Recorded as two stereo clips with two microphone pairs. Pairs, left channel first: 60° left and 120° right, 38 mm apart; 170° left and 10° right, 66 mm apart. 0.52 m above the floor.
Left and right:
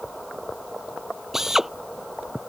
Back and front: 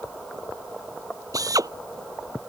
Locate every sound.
1.3 s a drill: 40° right